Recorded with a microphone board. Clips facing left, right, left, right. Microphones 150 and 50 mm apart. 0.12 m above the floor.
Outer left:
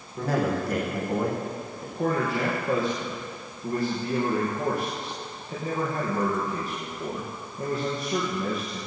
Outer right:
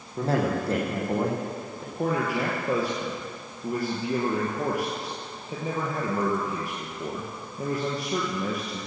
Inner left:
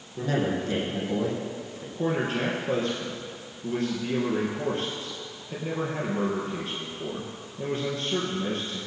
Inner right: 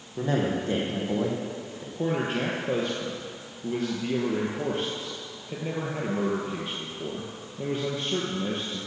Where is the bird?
No bird in this recording.